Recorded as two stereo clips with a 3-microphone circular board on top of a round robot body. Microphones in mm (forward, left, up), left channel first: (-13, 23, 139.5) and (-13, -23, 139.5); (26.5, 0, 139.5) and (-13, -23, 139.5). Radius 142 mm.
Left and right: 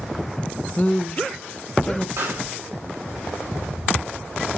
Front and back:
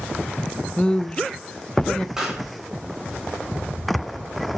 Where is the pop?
70° right, 4.5 m.